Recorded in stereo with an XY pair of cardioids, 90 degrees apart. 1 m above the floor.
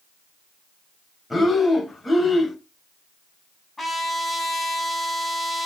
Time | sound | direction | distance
1.3 | breathing | 20° left | 3.5 m
3.8 | a trumpet | 20° left | 5.5 m